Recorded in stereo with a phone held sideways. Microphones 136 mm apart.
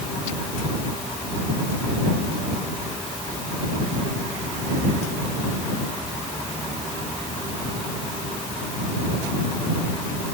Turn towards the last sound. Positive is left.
No sound to turn to.